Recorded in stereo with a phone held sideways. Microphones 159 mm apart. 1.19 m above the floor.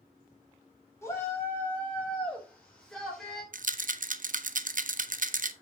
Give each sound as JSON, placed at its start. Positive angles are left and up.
{"t": 1.0, "sound": "a shout", "side_deg": 15, "distance_m": 4.5}
{"t": 3.5, "sound": "a rattle", "side_deg": -60, "distance_m": 0.5}